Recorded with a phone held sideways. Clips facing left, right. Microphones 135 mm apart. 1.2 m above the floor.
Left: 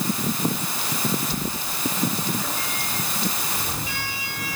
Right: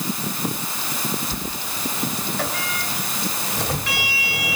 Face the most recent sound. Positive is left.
turn(degrees=-85)